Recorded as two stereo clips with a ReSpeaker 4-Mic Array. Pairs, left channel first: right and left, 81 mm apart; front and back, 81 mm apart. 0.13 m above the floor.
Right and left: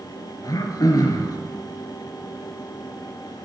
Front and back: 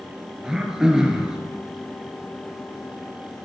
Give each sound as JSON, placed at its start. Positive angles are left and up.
{"t": 0.4, "sound": "throat clearing", "azimuth_deg": -100, "distance_m": 0.7}